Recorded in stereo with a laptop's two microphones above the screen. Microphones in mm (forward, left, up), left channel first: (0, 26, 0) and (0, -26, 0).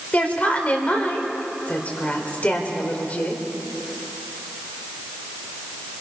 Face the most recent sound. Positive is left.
turn(degrees=30)  # may be behind; listen again after turning